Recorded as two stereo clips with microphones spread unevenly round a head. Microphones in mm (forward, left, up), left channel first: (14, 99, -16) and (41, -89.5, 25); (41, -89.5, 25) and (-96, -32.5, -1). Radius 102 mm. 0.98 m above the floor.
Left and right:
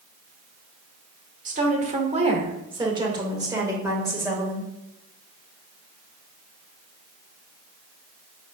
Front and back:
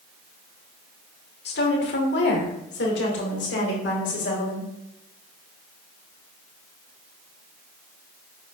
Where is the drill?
I don't hear a drill.